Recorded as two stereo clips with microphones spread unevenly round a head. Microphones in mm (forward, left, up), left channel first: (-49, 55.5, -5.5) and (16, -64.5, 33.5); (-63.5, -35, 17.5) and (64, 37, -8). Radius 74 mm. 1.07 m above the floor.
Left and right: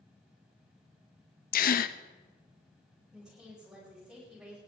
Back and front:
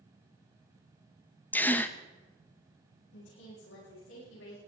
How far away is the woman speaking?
About 8 m.